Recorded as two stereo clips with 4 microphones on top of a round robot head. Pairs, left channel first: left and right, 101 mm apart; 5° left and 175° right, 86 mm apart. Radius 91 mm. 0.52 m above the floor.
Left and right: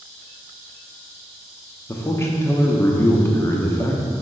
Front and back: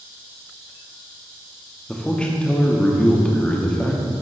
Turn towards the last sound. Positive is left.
turn(degrees=70)